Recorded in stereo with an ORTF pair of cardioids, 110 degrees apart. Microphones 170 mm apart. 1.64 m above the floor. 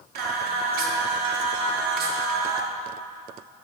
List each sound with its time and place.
0.1 s singing: 65° right, 0.8 m